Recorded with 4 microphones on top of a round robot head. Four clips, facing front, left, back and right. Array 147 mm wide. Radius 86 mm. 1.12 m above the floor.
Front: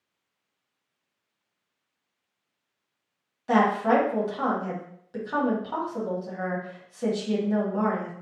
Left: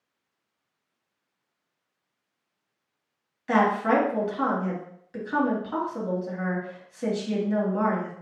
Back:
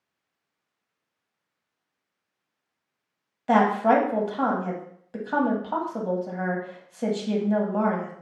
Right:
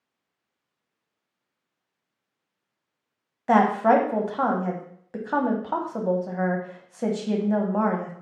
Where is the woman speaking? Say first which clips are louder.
Right 4 dB, back 2 dB; 110° right, 1.2 m.